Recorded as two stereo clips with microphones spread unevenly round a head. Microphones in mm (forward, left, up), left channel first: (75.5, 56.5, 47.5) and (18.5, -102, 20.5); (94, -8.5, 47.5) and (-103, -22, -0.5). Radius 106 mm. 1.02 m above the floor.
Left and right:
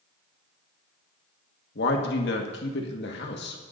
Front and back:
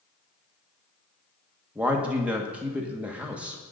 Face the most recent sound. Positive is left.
turn(degrees=105)